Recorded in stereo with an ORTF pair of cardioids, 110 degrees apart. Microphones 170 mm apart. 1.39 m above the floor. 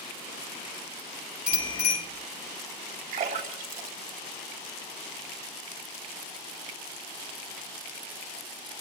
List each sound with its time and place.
1.5 s a bicycle bell: 65° left, 5.5 m
3.1 s a splash: 65° right, 3 m